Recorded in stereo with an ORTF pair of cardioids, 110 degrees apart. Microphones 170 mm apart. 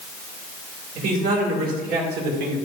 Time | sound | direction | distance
0.9 | a man speaking | 60° right | 2.5 m